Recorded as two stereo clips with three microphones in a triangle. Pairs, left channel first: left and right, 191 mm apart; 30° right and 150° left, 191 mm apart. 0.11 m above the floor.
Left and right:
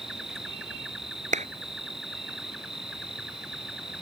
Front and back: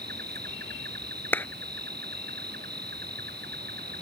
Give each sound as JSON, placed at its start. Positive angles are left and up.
{"t": 0.0, "sound": "an insect", "azimuth_deg": 180}
{"t": 1.3, "sound": "a clap", "azimuth_deg": -105}